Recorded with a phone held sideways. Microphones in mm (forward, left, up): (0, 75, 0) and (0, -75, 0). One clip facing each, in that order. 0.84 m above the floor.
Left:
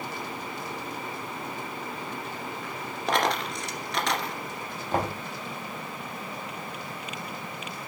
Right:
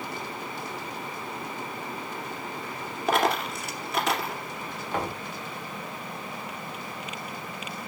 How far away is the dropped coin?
About 2 m.